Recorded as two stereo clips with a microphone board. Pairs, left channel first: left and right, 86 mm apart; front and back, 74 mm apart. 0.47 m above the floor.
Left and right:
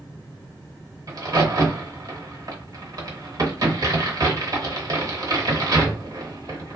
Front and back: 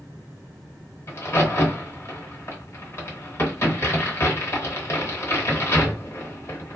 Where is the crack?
50° right, 1.0 m.